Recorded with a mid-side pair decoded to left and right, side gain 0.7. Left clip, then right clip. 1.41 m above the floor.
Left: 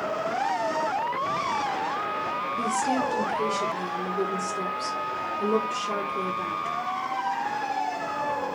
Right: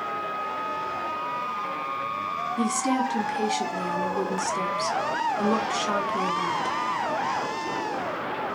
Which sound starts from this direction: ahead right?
A woman speaking, at 2.6 s.